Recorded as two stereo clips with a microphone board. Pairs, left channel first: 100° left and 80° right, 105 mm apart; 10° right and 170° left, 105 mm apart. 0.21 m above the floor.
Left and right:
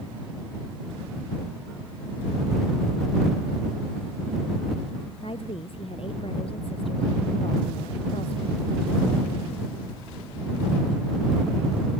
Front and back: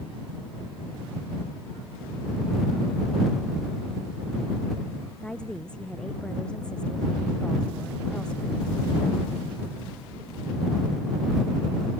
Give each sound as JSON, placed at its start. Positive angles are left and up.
{"t": 5.2, "sound": "a woman speaking", "azimuth_deg": 70}